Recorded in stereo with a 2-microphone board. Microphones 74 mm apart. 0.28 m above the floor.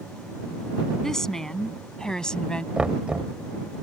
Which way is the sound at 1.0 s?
5° left (ahead or behind).